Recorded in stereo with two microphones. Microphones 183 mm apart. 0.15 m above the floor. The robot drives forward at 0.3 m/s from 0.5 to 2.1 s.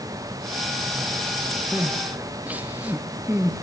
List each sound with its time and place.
1.7 s crying: 5° right (ahead or behind), 2.5 m; by 3.6 s 10° right (ahead or behind), 2 m